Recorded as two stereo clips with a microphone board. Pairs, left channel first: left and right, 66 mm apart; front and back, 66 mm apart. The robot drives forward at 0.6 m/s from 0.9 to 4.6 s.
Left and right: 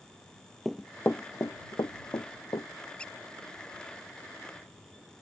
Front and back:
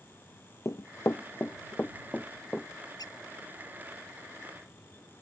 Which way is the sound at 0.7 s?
Straight ahead.